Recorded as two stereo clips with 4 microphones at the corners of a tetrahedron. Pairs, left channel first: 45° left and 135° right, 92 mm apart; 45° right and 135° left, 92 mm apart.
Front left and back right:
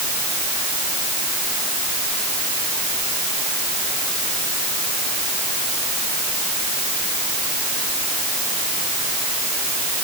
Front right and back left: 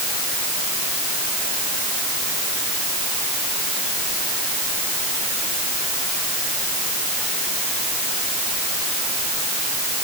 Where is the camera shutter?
I don't hear a camera shutter.